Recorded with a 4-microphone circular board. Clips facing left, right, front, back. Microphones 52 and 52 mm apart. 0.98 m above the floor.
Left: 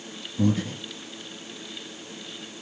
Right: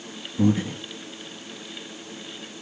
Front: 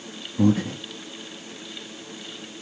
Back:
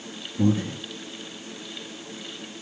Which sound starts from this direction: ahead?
Breathing, at 0.4 s.